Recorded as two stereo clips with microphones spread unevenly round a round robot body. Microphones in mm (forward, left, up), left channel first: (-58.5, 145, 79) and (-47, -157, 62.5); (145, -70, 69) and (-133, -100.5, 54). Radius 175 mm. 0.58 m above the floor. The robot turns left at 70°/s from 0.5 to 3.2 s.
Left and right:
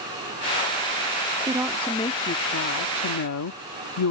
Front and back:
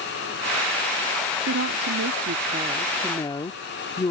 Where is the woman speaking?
155° right; by 4.1 s 80° left.